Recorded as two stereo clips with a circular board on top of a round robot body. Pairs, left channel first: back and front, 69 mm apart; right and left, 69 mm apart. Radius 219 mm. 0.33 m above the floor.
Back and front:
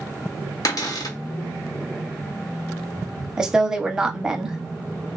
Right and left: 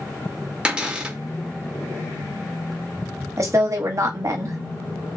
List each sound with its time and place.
0.7 s a cupboard door: 165° left, 1.3 m
3.4 s a woman speaking: 75° left, 1.2 m